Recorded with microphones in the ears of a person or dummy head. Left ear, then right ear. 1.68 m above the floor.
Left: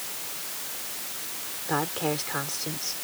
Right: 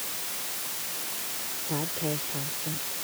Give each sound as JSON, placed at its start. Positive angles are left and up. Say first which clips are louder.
{"t": 1.7, "sound": "a woman speaking", "louder": "left 6 dB", "side_deg": 55}